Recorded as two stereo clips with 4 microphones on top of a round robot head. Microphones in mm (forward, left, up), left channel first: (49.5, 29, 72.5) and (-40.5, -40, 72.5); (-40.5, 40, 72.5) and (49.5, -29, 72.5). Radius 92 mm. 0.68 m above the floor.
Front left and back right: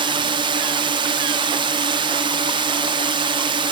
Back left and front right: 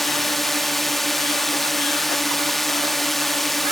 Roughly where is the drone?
Behind right.